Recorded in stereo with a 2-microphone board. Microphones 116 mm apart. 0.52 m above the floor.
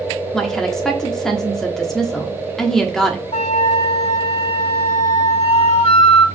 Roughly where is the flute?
Left.